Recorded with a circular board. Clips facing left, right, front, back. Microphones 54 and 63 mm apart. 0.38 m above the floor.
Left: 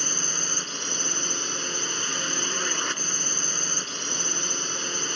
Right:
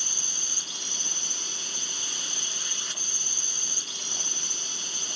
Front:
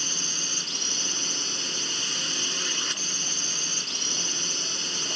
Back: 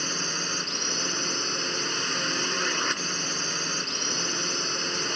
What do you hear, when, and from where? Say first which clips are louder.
0.0 s a drone: left 8 dB, back 5 dB; 130° left